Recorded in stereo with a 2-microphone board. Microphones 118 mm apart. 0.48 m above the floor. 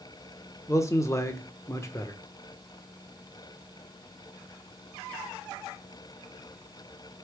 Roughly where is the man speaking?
Left.